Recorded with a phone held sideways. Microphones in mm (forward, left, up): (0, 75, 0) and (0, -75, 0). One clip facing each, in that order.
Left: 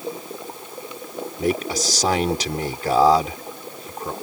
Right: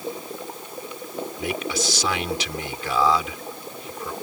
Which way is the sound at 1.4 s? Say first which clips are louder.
Left 6 dB; 40° left (ahead or behind).